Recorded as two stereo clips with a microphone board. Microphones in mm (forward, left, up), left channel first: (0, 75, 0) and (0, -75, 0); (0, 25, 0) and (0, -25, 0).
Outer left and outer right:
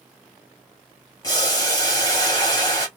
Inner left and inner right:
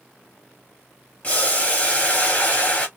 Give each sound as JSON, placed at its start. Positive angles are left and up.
{"t": 1.2, "sound": "boiling", "side_deg": 25, "distance_m": 1.6}